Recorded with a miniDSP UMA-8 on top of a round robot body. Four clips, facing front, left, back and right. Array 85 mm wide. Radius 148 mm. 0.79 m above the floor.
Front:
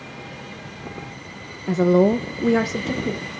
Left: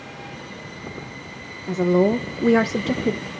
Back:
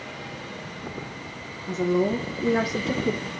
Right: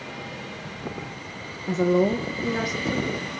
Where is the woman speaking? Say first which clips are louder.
Left 3 dB, front 7 dB; 5° right, 0.9 m; by 3.2 s 95° left, 1.2 m.